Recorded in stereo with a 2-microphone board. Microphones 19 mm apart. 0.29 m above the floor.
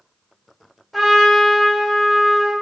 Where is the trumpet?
Centre (ahead or behind), 1.6 m.